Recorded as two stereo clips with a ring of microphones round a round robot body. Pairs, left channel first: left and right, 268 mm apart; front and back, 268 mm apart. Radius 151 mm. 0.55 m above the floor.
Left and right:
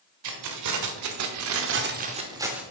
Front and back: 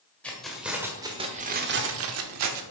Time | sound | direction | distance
0.2 | keys jangling | 85° right | 1.6 m